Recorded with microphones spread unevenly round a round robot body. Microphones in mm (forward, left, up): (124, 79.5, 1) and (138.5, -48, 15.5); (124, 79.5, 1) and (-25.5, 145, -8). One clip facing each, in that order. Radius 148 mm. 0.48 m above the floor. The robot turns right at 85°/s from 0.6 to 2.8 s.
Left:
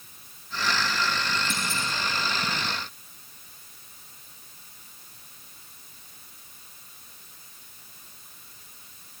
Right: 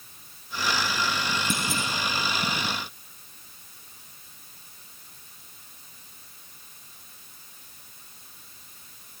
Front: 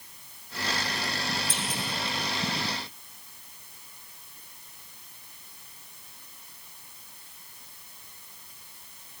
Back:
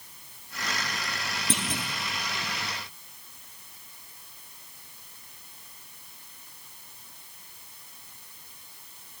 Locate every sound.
1.5 s a clunk: 145° right, 3 m; by 1.8 s 120° right, 3 m